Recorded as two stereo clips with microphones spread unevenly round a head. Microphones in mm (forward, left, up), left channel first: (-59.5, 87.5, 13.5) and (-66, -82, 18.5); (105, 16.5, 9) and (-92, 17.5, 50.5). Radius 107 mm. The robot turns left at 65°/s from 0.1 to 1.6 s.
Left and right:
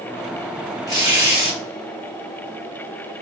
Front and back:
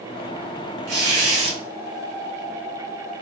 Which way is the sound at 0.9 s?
160° left.